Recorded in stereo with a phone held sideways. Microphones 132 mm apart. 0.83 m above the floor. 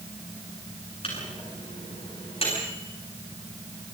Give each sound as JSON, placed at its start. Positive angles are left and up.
{"t": 1.0, "sound": "a microwave", "side_deg": 45, "distance_m": 9.5}